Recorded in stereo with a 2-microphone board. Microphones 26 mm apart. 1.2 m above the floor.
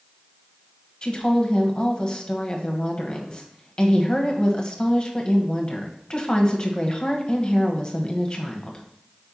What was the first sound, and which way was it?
A woman speaking, 35° left (ahead or behind).